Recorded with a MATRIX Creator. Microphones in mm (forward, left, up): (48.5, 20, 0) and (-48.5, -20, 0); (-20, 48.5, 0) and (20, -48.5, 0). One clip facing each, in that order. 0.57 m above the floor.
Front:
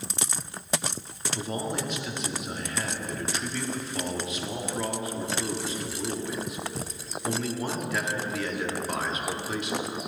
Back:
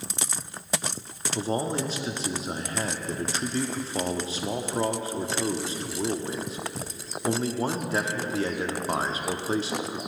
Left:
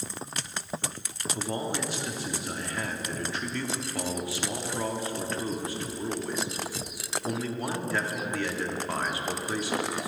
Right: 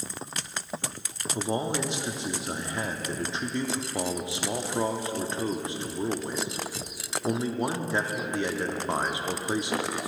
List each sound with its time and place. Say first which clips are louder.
1.4 s a man speaking: back 4 dB, right 4 dB; 120° right, 0.8 m